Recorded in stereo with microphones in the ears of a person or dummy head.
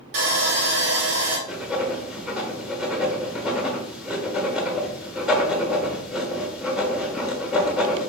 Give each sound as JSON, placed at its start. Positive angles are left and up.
{"t": 0.1, "sound": "sawing", "side_deg": -70, "distance_m": 1.9}
{"t": 1.5, "sound": "writing", "side_deg": 0, "distance_m": 1.0}